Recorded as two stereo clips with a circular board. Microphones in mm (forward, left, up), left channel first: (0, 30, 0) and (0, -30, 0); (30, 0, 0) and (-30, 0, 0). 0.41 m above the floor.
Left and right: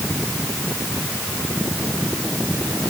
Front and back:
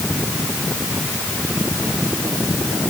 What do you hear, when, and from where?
Only background noise.